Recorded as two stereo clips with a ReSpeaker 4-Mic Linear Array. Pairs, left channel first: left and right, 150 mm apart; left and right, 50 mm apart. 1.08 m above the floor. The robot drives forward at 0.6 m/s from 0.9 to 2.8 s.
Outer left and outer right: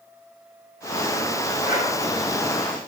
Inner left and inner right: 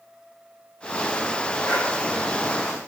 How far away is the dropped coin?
No dropped coin in this recording.